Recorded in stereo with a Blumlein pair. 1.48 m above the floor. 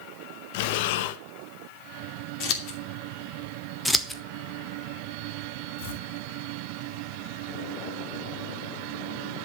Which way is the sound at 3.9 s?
Straight ahead.